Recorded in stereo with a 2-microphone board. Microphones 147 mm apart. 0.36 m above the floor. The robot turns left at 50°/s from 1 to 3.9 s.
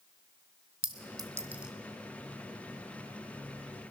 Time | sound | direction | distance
0.8 | a clink | 35° right (ahead or behind) | 1.6 m